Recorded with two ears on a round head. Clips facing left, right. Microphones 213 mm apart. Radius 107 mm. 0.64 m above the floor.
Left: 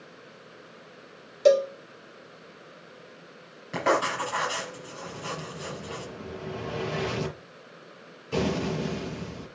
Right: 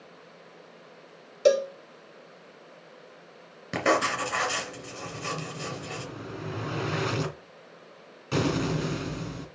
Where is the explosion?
75° right (ahead or behind), 2.5 m.